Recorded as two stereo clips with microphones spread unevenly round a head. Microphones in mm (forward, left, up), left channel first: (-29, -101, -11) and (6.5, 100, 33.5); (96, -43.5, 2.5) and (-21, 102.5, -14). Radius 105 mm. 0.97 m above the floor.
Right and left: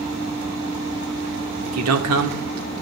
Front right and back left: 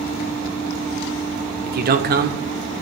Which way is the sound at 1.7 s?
90° left.